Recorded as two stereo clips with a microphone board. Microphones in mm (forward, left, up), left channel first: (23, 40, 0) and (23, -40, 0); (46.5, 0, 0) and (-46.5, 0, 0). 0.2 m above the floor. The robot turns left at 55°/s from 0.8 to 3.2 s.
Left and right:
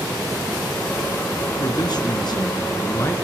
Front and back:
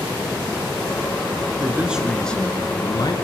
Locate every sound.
1.6 s a man speaking: 120° left, 3.5 m; by 3.1 s 35° left, 3.5 m